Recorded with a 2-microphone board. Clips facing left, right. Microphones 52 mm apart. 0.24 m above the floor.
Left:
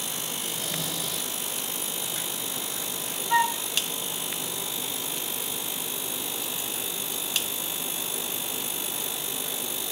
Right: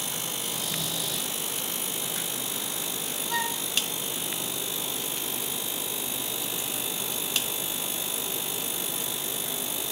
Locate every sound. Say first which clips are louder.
0.4 s snoring: left 1 dB; 25° left (ahead or behind), 4.5 m
3.3 s a flute: left 8 dB; 25° left (ahead or behind), 0.8 m